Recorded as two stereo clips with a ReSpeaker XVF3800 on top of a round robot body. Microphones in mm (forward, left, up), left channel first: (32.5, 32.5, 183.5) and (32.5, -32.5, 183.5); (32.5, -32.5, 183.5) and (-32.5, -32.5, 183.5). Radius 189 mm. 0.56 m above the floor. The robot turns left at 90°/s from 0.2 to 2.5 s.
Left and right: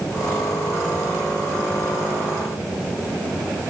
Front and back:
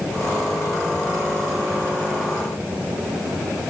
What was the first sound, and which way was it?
Only background noise.